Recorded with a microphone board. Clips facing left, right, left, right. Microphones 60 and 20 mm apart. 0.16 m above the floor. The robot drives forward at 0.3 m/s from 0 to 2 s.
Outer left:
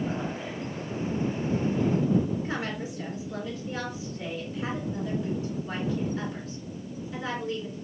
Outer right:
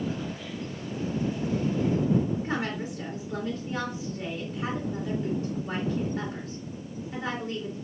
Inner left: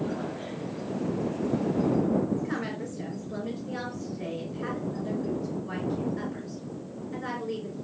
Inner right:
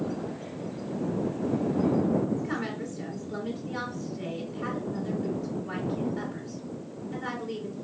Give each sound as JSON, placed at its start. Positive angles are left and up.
{"t": 2.4, "sound": "a woman speaking", "side_deg": -45, "distance_m": 2.5}